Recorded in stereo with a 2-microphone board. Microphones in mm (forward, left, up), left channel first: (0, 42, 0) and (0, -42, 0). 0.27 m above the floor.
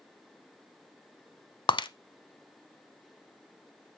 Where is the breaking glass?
70° left (ahead or behind), 0.5 m.